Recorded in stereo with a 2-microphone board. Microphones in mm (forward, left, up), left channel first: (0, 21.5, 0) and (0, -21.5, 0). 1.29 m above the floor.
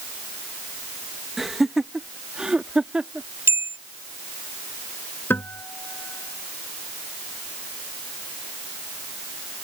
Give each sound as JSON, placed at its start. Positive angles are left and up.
{"t": 1.4, "sound": "laughter", "side_deg": 0}
{"t": 3.5, "sound": "a bell", "side_deg": -85}
{"t": 5.3, "sound": "a guitar", "side_deg": 55}